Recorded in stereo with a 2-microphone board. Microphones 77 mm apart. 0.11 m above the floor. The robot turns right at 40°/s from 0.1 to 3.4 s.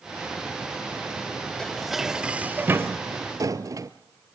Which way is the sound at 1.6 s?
170° left.